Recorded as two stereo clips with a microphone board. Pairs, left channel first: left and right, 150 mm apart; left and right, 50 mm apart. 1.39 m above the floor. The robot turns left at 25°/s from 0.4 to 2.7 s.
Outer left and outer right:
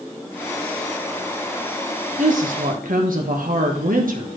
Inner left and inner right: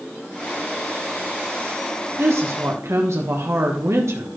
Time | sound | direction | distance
2.2 | a woman speaking | 60° right (ahead or behind) | 1.2 m